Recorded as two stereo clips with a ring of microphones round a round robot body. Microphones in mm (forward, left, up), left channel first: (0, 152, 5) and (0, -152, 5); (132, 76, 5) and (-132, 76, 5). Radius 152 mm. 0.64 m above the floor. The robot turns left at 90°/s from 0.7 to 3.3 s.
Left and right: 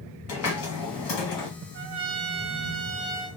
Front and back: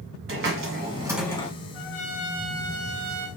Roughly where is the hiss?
Behind left.